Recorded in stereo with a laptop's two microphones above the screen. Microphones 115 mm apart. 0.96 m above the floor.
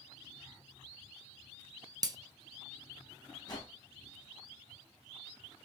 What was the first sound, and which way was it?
Breaking glass, 30° right (ahead or behind).